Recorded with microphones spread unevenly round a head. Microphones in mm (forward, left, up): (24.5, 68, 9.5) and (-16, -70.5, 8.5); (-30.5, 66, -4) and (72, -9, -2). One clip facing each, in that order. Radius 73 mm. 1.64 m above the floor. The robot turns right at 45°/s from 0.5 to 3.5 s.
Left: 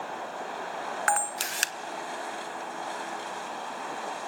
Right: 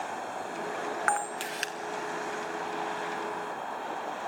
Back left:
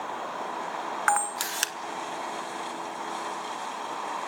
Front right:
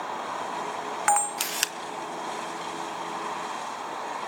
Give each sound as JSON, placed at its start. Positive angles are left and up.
{"t": 1.1, "sound": "a camera shutter", "azimuth_deg": 25, "distance_m": 1.0}